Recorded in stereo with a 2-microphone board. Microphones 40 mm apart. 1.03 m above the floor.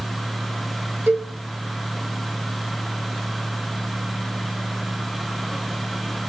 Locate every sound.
1.1 s a cowbell: 65° right (ahead or behind), 1.2 m